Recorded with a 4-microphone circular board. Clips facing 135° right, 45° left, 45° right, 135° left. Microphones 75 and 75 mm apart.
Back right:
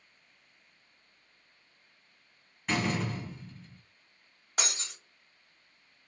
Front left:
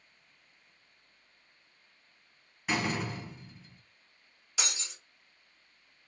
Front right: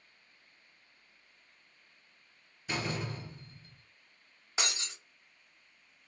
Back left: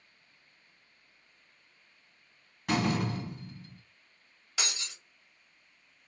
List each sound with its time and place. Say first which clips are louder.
2.7 s a door slam: back right 1 dB, back left 7 dB; 135° left, 1.7 m
4.6 s breaking glass: back right 2 dB, front right 1 dB; 105° right, 1.5 m